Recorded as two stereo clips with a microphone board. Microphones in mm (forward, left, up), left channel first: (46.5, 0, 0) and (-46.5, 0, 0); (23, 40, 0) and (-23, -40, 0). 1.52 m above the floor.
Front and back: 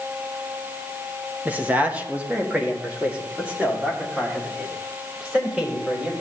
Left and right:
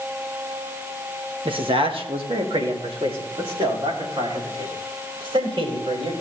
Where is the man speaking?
110° right, 1.2 m; by 6.1 s 105° right, 5 m.